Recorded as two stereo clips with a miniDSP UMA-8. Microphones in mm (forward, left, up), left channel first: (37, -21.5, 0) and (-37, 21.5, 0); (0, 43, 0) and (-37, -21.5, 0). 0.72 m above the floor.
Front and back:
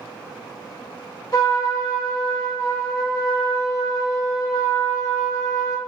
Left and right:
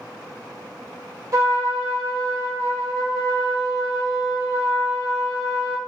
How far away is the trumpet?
About 0.7 m.